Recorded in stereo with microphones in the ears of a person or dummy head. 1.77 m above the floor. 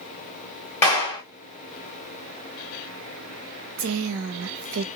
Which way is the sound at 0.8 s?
15° left (ahead or behind).